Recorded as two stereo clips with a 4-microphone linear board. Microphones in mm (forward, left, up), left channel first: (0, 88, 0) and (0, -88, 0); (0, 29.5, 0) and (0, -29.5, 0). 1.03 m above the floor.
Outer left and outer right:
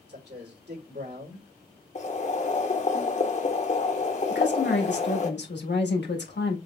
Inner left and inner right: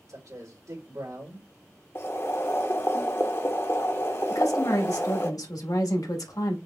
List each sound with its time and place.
0.1 s a man speaking: 75° right (ahead or behind), 3 m
1.9 s boiling: 40° left (ahead or behind), 1.1 m
4.3 s a woman speaking: 80° left, 1.4 m